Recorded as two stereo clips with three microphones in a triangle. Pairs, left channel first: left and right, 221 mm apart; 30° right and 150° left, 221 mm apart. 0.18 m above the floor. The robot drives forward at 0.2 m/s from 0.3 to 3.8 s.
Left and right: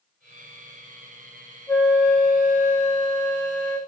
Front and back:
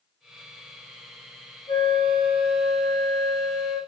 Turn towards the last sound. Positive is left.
turn(degrees=165)